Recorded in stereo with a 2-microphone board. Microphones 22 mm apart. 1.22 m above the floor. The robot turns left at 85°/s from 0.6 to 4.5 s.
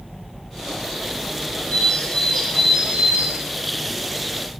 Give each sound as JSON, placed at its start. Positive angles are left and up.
{"t": 1.7, "sound": "a bird", "azimuth_deg": 65, "distance_m": 5.0}